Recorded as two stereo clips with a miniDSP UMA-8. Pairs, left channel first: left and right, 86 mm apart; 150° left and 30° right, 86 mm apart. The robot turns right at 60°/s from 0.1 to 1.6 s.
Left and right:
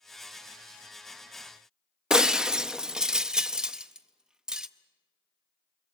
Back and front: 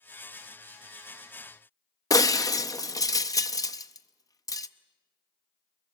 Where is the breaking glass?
170° right, 0.6 m.